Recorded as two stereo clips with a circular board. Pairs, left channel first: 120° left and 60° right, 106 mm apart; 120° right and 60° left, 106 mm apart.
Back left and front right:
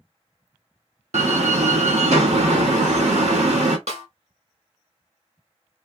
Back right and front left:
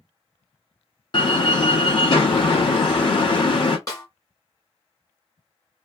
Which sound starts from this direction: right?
A door slam, at 1.1 s.